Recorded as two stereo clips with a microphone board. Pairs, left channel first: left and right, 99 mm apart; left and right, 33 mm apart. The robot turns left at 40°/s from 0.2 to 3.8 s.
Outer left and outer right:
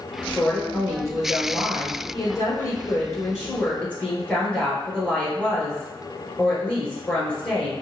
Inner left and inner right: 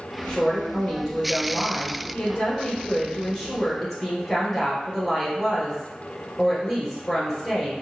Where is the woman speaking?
155° left, 1.9 m; by 7.7 s 15° left, 1.9 m.